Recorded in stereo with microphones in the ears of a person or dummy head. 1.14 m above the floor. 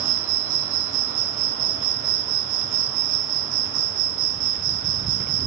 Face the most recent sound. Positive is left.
turn(degrees=-70)  # may be behind; listen again after turning